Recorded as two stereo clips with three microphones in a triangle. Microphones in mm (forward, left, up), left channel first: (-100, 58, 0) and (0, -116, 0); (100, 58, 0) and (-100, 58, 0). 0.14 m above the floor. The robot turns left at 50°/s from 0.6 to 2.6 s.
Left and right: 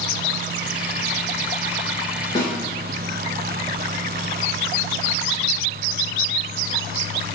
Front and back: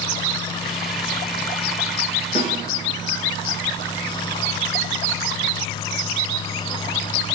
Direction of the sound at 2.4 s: 60° left.